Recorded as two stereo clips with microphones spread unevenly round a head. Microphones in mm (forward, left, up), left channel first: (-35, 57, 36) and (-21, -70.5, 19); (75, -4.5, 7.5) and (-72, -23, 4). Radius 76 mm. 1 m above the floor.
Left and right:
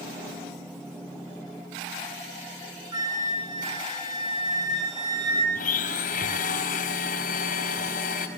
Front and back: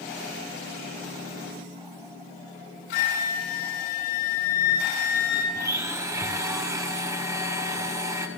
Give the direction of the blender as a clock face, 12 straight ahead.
8 o'clock.